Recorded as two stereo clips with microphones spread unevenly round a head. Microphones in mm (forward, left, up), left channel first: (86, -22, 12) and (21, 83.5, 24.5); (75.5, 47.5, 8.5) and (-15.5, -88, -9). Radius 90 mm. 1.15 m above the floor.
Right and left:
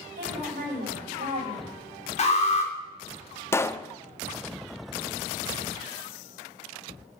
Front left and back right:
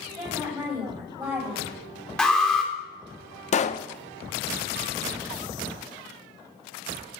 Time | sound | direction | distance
0.1 | a woman speaking | 160° left | 7 m
2.2 | an alarm | 30° right | 3 m
3.5 | a pop | 10° left | 0.8 m